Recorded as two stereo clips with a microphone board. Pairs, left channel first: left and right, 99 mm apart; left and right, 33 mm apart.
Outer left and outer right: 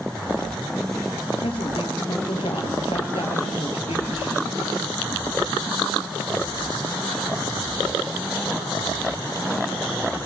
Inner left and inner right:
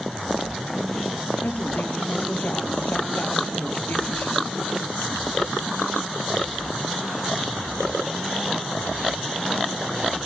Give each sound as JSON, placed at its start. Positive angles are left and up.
{"t": 1.4, "sound": "a woman speaking", "side_deg": 70, "distance_m": 4.5}